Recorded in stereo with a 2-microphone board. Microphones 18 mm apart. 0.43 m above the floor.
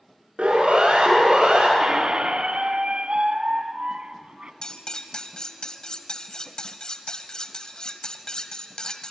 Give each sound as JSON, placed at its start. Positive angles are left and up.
{"t": 0.4, "sound": "a siren", "side_deg": -80, "distance_m": 8.0}
{"t": 1.8, "sound": "a squeak", "side_deg": -85, "distance_m": 1.2}
{"t": 4.6, "sound": "cutlery clinking", "side_deg": 45, "distance_m": 1.4}